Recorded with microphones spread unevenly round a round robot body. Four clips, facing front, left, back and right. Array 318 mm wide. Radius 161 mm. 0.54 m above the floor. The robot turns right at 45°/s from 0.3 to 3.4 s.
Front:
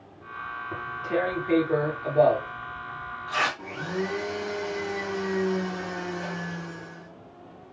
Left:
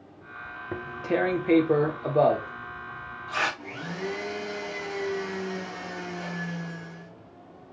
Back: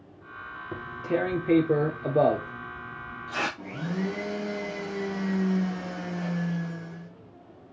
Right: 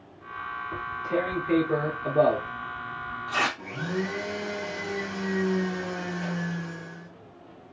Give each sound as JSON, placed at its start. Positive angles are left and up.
{"t": 0.7, "sound": "tearing paper", "azimuth_deg": 105, "distance_m": 1.0}
{"t": 3.6, "sound": "a blender", "azimuth_deg": -165, "distance_m": 1.9}